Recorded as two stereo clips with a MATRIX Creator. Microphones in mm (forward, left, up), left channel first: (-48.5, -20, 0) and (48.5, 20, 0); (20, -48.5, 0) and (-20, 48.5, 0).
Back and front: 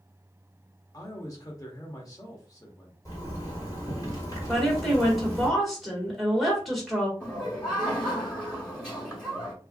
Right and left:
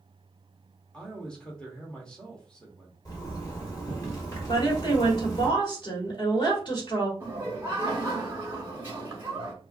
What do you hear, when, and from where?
0.9 s a man speaking: 145° right, 1.0 m
3.0 s a zipper: 115° right, 1.6 m
4.5 s a woman speaking: 70° right, 1.9 m
7.2 s laughter: 125° left, 1.1 m